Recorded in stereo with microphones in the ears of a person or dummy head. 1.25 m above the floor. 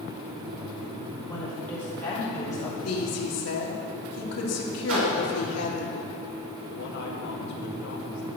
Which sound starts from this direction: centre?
A woman speaking, at 1.3 s.